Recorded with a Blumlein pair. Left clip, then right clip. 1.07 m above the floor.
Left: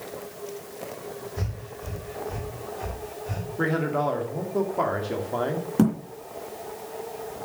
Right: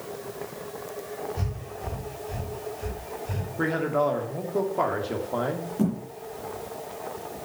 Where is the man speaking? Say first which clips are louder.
Right 1 dB; straight ahead, 2 m.